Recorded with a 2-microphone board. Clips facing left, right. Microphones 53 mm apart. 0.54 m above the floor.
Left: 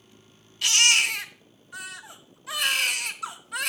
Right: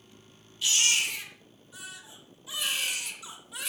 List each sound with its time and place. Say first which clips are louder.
0.6 s a baby crying: left 6 dB; 65° left (ahead or behind), 0.7 m